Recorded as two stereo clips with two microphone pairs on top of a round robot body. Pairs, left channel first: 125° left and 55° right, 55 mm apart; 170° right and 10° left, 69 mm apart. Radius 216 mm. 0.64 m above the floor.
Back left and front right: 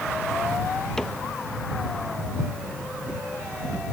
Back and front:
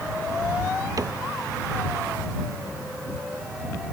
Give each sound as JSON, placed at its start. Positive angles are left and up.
{"t": 1.0, "sound": "a cupboard door", "azimuth_deg": 45}